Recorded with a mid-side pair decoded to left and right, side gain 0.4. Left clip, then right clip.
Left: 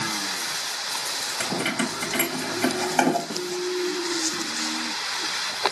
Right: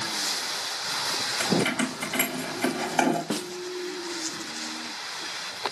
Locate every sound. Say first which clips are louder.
1.4 s keys jangling: even; 15° left, 5 m; by 3.2 s 30° left, 5 m
3.3 s a snare drum: left 1 dB; 50° right, 1.4 m